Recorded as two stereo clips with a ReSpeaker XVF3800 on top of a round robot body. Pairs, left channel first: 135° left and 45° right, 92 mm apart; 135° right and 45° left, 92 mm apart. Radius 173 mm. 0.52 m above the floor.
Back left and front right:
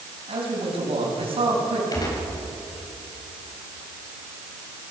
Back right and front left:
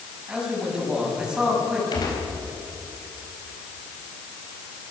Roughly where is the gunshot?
Behind.